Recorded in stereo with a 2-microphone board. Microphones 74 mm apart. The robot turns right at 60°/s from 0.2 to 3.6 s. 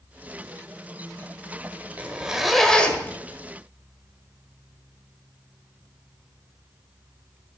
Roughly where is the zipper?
Ahead right.